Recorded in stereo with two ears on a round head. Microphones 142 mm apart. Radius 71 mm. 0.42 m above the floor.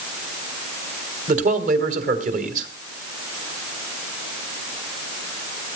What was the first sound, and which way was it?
A man speaking, 55° right (ahead or behind).